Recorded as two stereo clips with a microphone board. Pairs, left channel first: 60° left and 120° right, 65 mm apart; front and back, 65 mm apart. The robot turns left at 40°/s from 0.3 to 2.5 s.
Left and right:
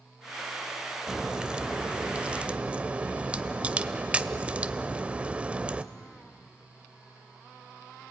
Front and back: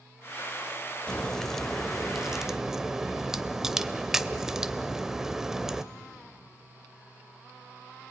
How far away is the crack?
About 0.6 m.